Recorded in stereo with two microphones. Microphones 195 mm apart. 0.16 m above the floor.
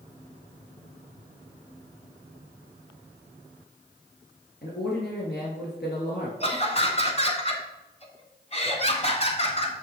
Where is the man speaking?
65° left (ahead or behind), 2.5 m.